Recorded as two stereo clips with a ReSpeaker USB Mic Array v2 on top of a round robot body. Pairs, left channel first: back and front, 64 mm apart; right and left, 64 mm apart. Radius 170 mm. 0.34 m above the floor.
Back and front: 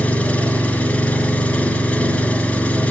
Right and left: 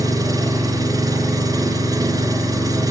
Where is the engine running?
115° left, 3 m.